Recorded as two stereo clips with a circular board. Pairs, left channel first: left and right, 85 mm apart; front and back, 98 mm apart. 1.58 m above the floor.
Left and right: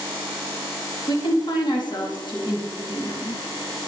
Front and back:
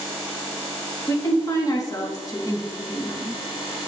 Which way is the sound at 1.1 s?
55° left.